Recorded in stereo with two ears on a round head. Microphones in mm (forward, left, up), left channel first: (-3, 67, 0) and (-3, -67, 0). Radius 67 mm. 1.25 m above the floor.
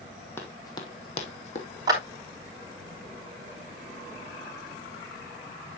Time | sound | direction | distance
0.4 | running footsteps | 15° left (ahead or behind) | 2 m
1.9 | a clap | 25° right (ahead or behind) | 3 m